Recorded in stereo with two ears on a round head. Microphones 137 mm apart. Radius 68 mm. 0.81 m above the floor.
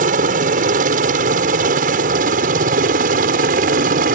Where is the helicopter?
55° right (ahead or behind); by 4.2 s 60° right (ahead or behind).